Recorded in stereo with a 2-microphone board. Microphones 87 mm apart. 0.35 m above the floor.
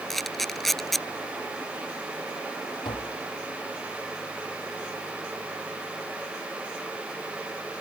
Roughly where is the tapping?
Left.